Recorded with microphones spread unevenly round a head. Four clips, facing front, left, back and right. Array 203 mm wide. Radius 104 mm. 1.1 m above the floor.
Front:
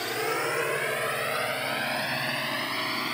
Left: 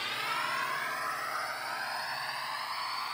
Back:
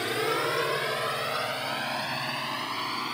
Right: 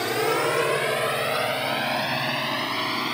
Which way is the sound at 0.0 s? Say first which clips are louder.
Right 12 dB, back 1 dB; 100° right.